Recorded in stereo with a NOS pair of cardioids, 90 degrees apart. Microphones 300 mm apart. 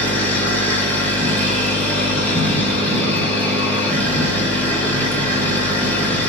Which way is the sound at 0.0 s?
5° left.